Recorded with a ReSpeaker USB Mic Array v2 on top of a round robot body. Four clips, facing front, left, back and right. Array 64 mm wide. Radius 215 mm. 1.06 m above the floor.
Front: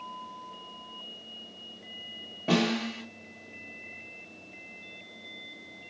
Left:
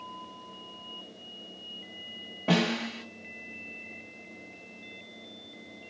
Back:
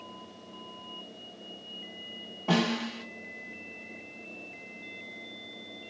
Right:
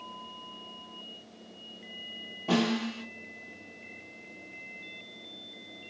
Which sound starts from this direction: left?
A snare drum, at 2.5 s.